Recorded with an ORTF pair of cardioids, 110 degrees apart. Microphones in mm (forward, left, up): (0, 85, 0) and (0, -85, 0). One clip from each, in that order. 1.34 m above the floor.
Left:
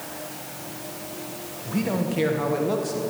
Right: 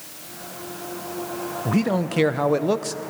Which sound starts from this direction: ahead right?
A man speaking, at 1.6 s.